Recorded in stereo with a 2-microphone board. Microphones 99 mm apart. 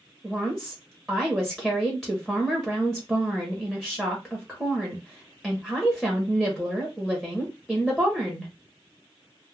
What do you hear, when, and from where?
0.2 s a woman speaking: centre (ahead or behind), 0.9 m